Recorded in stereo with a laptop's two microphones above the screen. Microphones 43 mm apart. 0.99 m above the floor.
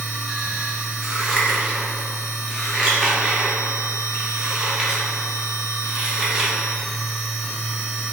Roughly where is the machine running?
Centre.